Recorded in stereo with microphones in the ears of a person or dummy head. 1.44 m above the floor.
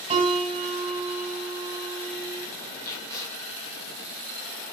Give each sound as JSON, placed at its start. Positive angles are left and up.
{"t": 0.1, "sound": "a piano", "side_deg": -35, "distance_m": 2.5}
{"t": 2.8, "sound": "tape being pulled", "side_deg": 15, "distance_m": 2.5}